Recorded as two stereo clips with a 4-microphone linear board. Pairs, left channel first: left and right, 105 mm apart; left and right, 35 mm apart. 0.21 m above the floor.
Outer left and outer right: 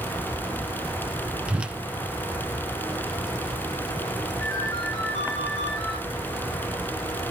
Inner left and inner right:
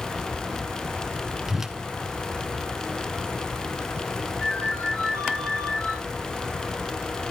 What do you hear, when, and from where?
1.5 s a whoosh: 10° right (ahead or behind), 0.8 m
4.4 s a ringtone: 25° left (ahead or behind), 7.5 m